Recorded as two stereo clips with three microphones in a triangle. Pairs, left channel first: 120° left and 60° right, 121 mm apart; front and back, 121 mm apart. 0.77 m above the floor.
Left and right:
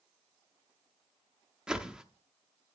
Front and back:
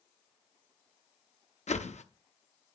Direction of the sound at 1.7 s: 25° left.